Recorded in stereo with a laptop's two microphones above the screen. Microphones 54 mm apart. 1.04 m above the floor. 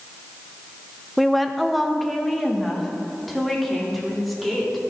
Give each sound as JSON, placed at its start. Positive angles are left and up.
{"t": 1.2, "sound": "a woman speaking", "side_deg": -5, "distance_m": 0.6}